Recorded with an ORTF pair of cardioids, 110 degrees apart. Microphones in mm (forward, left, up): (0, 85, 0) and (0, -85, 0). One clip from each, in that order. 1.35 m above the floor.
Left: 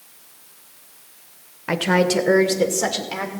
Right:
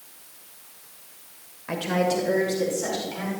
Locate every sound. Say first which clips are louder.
1.7 s a woman speaking: left 6 dB; 50° left, 1.7 m; by 3.3 s 80° left, 3 m